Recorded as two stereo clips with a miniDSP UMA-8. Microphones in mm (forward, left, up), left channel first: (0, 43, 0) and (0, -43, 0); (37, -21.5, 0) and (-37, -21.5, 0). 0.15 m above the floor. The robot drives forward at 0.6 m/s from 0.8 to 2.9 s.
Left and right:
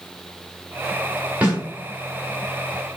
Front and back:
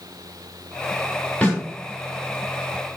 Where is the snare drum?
35° right, 1.8 m; by 1.6 s 40° right, 1.7 m.